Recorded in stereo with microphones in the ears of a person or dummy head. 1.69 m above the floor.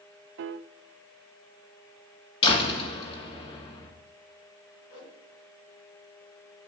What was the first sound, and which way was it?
A piano, 65° right (ahead or behind).